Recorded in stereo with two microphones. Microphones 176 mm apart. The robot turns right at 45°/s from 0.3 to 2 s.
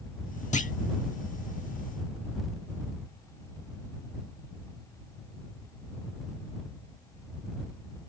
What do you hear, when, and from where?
0.5 s a clunk: 45° left (ahead or behind); by 0.7 s 50° left (ahead or behind)